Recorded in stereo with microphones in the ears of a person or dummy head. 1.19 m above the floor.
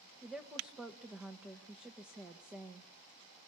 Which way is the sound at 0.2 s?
5° right (ahead or behind).